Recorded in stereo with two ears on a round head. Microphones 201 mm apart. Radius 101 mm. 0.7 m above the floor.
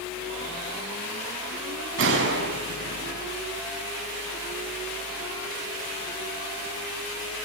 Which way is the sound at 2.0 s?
60° right (ahead or behind).